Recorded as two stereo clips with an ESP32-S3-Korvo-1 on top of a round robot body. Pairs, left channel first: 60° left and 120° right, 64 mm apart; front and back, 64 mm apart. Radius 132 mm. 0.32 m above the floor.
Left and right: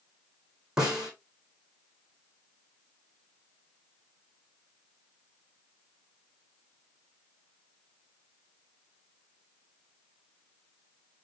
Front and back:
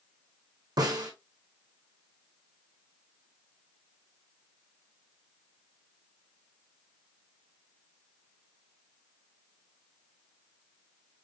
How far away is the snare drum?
About 4 m.